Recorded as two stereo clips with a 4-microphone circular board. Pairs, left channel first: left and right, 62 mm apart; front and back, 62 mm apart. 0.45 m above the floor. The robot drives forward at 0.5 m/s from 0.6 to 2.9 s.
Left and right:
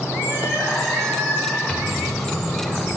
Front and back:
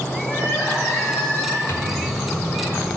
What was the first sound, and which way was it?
Crying, 135° right.